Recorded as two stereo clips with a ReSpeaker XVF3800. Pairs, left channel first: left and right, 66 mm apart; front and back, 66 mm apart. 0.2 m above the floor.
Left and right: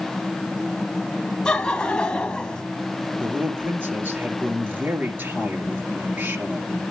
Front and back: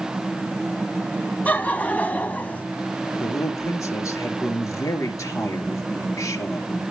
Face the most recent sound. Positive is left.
turn(degrees=-35)